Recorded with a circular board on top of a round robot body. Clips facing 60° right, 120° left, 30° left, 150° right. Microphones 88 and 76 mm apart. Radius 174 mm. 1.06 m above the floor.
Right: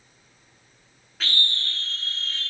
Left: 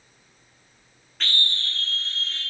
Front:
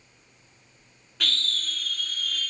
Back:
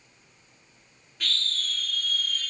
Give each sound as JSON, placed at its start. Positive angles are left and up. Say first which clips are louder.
{"t": 1.2, "sound": "a scream", "louder": "even, front 2 dB", "azimuth_deg": 25, "distance_m": 0.6}